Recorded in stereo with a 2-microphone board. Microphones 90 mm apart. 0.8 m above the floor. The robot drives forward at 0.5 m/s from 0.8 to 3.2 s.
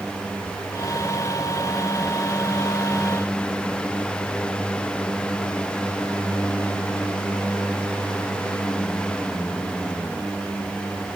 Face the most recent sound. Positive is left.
No sound to turn to.